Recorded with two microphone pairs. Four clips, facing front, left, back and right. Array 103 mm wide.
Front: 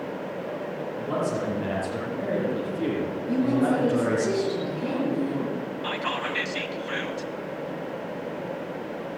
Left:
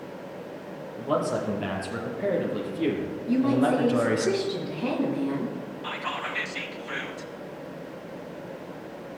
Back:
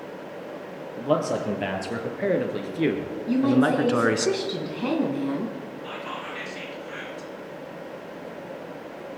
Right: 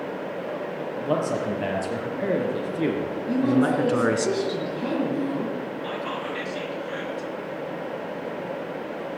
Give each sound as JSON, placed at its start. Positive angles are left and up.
{"t": 1.0, "sound": "a man speaking", "azimuth_deg": -160, "distance_m": 5.0}
{"t": 3.3, "sound": "a woman speaking", "azimuth_deg": 180, "distance_m": 3.0}
{"t": 5.8, "sound": "whispering", "azimuth_deg": 15, "distance_m": 1.3}